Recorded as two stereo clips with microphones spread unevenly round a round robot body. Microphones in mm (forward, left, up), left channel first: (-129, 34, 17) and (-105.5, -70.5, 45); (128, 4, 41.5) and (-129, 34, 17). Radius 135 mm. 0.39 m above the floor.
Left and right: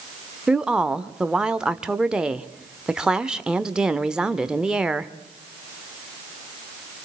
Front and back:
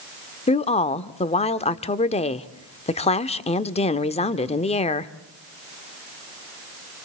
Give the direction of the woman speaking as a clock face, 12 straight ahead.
11 o'clock.